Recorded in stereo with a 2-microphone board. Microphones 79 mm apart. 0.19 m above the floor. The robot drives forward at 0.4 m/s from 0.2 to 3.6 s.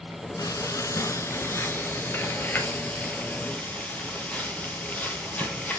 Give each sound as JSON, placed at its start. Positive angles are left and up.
{"t": 0.4, "sound": "frying", "side_deg": 45, "distance_m": 0.9}